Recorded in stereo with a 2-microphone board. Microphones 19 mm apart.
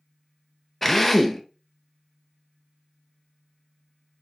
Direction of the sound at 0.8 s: 10° left (ahead or behind).